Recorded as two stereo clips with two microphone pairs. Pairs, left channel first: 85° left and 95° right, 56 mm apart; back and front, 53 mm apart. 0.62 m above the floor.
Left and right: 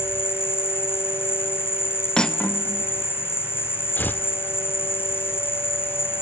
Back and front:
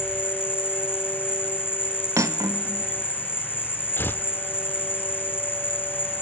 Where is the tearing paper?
135° left, 0.8 m.